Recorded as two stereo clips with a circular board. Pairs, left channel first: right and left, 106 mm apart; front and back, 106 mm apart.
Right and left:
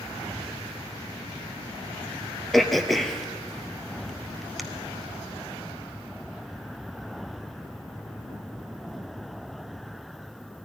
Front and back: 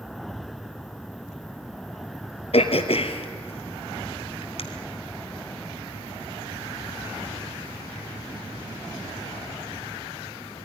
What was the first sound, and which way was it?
Throat clearing, straight ahead.